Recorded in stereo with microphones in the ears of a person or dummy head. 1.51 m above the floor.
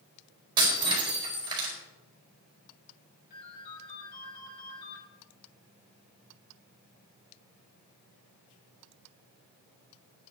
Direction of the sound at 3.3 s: 50° left (ahead or behind).